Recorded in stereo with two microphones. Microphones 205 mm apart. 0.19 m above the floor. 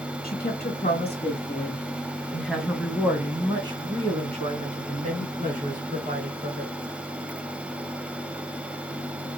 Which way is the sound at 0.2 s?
40° left (ahead or behind).